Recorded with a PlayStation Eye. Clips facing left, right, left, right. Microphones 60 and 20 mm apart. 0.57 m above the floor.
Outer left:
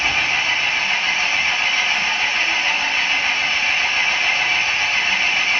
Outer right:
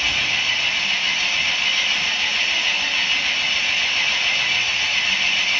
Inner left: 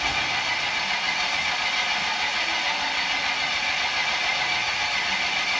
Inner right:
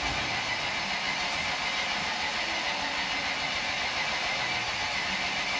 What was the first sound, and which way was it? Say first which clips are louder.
An engine running: outer left 3 dB, inner left 6 dB; 30° left (ahead or behind).